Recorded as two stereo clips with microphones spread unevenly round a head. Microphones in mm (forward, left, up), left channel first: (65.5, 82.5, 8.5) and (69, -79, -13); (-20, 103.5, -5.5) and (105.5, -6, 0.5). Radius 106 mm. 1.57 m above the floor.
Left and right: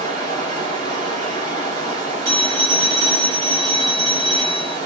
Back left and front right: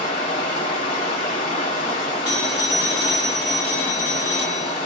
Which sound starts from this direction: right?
A phone ringing, at 2.2 s.